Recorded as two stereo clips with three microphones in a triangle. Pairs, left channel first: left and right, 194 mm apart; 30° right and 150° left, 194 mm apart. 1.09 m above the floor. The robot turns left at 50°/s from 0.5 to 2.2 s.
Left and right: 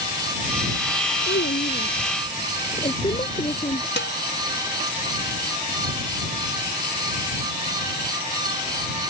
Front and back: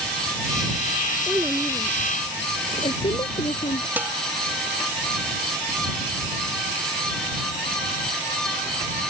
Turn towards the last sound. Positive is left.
turn(degrees=70)